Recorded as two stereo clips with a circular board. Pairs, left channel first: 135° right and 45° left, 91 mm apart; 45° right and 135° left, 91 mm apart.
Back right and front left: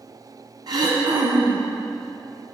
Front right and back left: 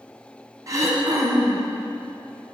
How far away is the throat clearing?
About 1.1 m.